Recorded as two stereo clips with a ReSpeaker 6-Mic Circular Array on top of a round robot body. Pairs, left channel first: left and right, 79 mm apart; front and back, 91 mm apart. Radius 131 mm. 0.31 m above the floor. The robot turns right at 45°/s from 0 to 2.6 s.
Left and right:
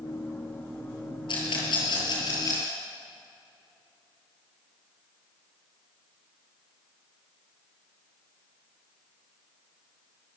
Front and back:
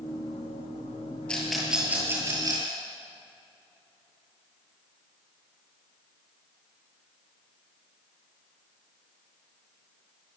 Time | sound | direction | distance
1.3 | a rattle | 80° left | 8 m